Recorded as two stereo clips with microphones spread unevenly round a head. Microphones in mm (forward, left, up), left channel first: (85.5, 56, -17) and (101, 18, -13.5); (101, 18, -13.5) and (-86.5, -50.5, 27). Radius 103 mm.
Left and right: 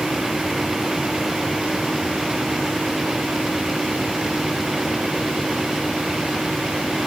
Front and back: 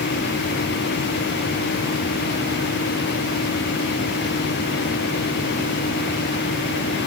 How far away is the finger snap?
I don't hear a finger snap.